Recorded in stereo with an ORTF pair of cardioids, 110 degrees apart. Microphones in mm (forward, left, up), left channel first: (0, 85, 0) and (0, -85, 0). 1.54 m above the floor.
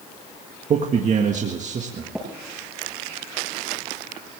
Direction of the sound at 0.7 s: 45° right.